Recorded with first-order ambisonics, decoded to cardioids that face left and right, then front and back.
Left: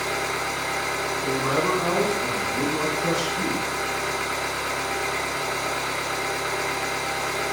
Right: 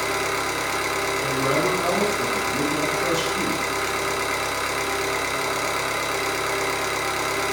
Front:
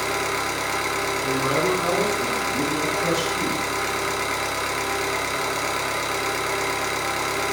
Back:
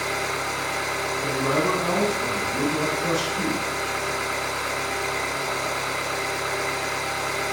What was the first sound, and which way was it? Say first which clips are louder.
An engine running: right 2 dB, front 2 dB; 50° right.